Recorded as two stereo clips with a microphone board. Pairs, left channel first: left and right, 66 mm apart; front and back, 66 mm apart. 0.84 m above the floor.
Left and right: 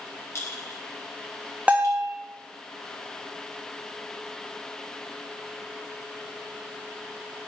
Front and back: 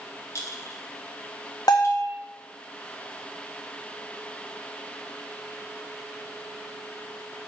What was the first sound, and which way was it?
A clink, 40° left.